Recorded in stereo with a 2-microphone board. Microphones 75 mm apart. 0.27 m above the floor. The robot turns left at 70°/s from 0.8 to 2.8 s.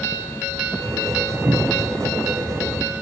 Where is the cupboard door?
75° right (ahead or behind), 6 m; by 1.9 s 60° right (ahead or behind), 6 m.